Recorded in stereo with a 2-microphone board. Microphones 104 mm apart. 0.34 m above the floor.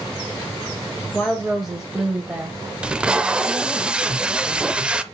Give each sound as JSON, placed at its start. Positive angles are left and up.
{"t": 1.1, "sound": "a woman speaking", "side_deg": 15, "distance_m": 1.1}
{"t": 2.8, "sound": "tape being pulled", "side_deg": -10, "distance_m": 0.5}